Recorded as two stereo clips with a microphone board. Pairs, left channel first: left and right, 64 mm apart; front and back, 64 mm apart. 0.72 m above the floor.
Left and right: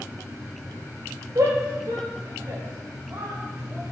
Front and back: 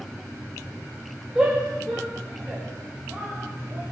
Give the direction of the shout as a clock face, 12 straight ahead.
4 o'clock.